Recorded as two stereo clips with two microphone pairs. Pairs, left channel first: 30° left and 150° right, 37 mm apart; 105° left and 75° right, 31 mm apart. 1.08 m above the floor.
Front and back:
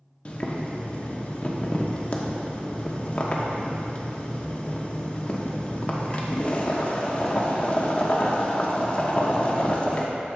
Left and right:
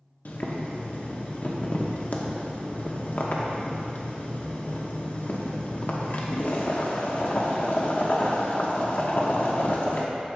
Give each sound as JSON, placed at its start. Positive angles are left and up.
{"t": 0.2, "sound": "boiling", "azimuth_deg": 90, "distance_m": 1.0}